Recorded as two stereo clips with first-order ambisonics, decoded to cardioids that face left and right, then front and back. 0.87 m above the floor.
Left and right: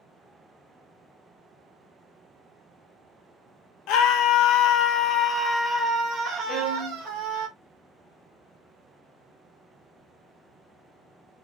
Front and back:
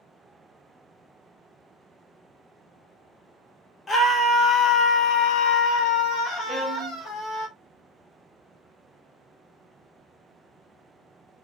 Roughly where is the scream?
Left.